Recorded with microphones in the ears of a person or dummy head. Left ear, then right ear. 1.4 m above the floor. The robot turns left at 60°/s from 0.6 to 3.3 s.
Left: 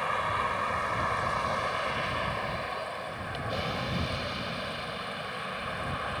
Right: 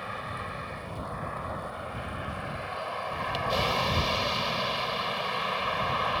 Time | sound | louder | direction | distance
0.0 | a vehicle | left 7 dB | 135° left | ?